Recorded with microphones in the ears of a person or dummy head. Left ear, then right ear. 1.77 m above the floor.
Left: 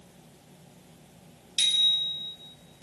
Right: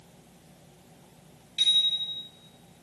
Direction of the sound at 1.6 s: 20° left (ahead or behind).